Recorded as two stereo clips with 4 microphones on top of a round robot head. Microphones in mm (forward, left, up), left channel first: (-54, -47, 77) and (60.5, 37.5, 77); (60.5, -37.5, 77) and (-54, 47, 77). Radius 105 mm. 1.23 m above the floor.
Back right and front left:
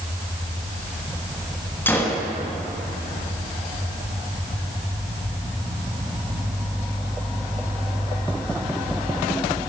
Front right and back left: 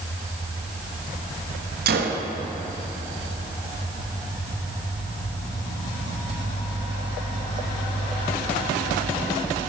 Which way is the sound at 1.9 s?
140° left.